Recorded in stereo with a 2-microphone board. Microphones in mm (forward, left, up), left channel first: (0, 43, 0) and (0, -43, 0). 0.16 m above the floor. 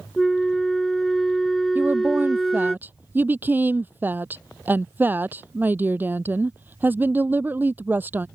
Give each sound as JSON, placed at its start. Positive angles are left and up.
{"t": 0.2, "sound": "a flute", "side_deg": 5}
{"t": 1.8, "sound": "a woman speaking", "side_deg": -25}